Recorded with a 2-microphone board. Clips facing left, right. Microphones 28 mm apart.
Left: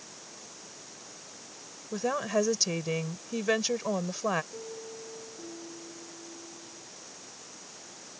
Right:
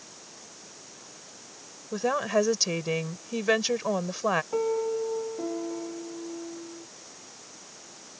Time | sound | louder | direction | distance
1.9 | a woman speaking | right 3 dB | 15° right (ahead or behind) | ?
4.5 | a piano | right 15 dB | 85° right | ?